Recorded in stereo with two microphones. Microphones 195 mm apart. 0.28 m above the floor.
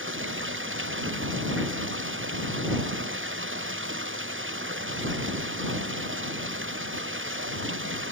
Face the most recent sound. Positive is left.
turn(degrees=-85)